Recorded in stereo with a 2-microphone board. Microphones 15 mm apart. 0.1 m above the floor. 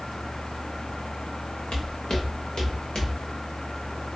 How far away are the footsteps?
About 0.9 m.